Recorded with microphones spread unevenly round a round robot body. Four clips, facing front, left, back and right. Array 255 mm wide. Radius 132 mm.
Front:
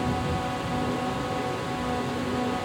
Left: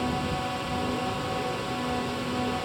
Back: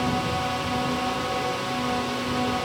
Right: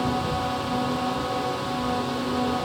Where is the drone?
135° right.